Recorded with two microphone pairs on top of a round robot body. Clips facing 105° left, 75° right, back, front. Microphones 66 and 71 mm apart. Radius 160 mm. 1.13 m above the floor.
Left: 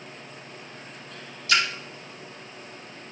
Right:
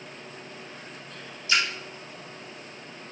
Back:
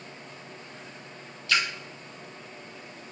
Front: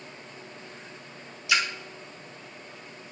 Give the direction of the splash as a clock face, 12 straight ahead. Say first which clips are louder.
Left 2 dB, front 1 dB; 9 o'clock.